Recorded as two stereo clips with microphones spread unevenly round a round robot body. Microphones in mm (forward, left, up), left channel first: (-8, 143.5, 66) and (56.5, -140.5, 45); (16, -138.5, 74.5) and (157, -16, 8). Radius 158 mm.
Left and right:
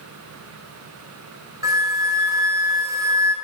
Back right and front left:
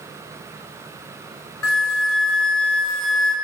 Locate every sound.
1.6 s a flute: 155° right, 1.1 m